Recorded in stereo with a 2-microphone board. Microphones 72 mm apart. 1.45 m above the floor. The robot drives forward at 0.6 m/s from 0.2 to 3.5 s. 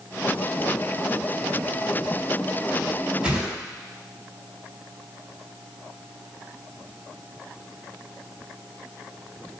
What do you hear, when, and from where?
3.2 s a whoosh: 10° right (ahead or behind), 4.5 m